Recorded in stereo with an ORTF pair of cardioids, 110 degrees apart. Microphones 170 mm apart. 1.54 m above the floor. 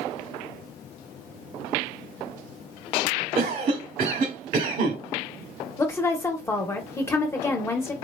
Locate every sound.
3.4 s a cough: 55° right, 1.0 m
5.8 s a woman speaking: 15° left, 0.9 m